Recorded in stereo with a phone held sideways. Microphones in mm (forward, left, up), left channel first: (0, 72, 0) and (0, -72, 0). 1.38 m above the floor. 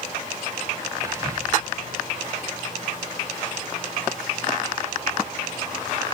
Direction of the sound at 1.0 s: 20° right (ahead or behind).